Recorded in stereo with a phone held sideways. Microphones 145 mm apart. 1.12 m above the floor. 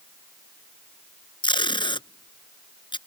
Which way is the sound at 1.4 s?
35° left (ahead or behind).